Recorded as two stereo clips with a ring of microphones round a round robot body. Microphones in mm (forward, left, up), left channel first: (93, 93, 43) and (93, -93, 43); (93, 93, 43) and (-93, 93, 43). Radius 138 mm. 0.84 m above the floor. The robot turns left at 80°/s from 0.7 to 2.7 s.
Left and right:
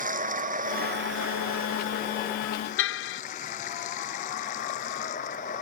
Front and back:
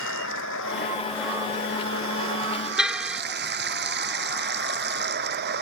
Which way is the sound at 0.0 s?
45° right.